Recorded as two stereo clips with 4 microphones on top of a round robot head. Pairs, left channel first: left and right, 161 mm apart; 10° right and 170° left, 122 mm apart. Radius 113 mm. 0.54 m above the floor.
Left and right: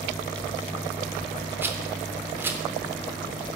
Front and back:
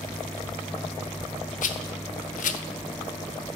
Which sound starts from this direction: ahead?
A rattle, at 1.6 s.